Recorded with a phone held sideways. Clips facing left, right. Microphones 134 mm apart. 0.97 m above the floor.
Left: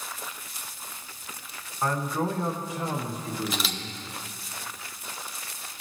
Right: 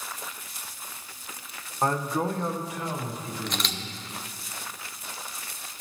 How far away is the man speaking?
About 0.9 m.